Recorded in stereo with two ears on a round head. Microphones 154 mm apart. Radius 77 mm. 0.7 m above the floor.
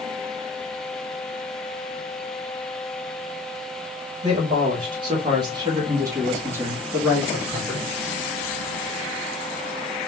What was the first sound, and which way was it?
A man speaking, 30° right (ahead or behind).